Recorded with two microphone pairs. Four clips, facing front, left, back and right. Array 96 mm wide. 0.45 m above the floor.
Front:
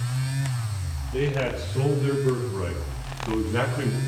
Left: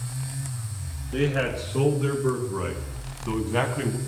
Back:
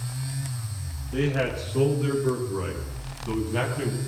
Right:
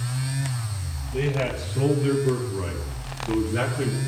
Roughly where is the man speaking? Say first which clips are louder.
Left 1 dB, even; behind left.